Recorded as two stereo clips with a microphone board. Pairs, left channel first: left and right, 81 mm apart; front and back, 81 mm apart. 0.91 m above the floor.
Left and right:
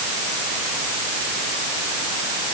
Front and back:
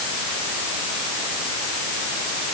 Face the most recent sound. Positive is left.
No sound to turn to.